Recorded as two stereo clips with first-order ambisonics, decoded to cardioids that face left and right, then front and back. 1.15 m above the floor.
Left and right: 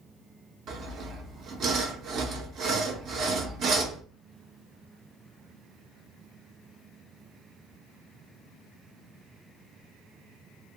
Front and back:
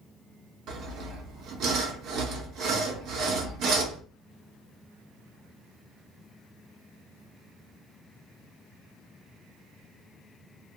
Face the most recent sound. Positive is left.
turn(degrees=-140)